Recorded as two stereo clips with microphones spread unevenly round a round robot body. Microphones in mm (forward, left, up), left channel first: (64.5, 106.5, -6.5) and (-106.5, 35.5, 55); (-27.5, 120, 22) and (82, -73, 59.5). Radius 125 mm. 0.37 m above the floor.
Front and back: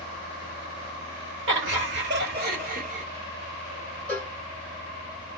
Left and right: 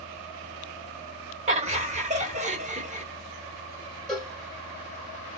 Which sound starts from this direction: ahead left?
A cowbell, at 4.1 s.